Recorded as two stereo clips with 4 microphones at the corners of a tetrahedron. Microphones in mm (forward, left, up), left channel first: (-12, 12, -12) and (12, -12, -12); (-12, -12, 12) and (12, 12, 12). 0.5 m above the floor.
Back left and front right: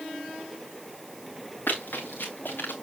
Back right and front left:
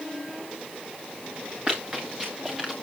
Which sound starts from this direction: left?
Running footsteps, at 1.7 s.